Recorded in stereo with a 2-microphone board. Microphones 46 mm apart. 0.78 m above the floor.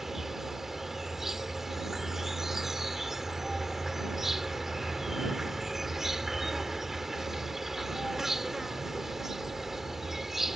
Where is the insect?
5° right (ahead or behind).